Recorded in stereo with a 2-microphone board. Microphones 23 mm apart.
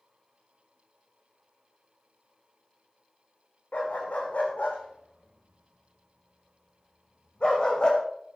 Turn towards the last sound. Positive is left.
turn(degrees=40)  # may be behind; listen again after turning